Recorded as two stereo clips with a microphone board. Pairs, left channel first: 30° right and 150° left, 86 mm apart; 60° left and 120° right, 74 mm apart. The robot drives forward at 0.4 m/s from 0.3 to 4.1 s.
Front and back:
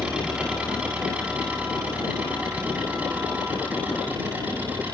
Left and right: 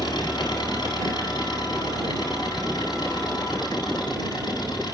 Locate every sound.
0.0 s an engine running: 70° left, 9 m; by 5.0 s 80° left, 8.5 m